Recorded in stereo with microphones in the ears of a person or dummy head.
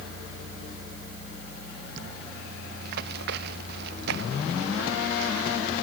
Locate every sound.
2.8 s running footsteps: 50° right (ahead or behind); by 5.6 s 65° right (ahead or behind)